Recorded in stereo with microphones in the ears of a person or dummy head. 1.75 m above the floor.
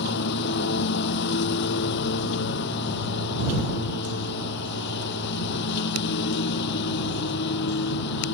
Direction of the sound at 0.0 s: 60° left (ahead or behind).